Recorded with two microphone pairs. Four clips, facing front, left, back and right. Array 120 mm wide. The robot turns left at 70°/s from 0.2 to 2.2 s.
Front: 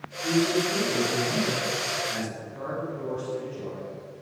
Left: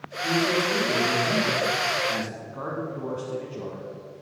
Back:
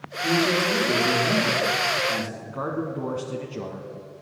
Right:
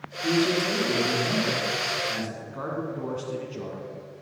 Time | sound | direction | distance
0.2 | a man speaking | 100° right | 5 m
2.5 | a man speaking | 170° right | 1.8 m